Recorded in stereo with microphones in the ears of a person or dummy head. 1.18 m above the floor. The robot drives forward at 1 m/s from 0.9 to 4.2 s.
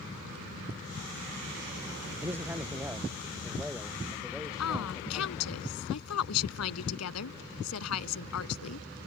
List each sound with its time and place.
2.2 s a man speaking: 15° right (ahead or behind); by 5.5 s 5° right (ahead or behind)
4.6 s a woman speaking: 90° left